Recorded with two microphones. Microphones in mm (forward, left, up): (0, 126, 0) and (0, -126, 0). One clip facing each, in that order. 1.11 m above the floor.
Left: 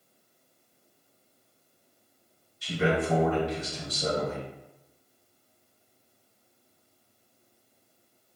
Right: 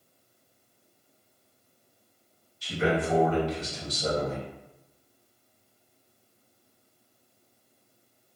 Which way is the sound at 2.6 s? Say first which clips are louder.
Even; 65° left (ahead or behind).